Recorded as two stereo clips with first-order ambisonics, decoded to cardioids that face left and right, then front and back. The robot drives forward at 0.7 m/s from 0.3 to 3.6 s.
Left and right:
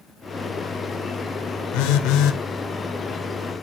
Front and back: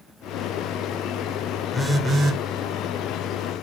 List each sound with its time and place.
1.7 s a phone buzzing: 90° left, 0.7 m; by 2.4 s 125° left, 0.8 m